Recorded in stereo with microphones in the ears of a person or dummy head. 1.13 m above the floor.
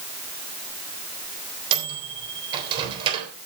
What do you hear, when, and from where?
1.7 s a microwave: 30° right (ahead or behind), 3 m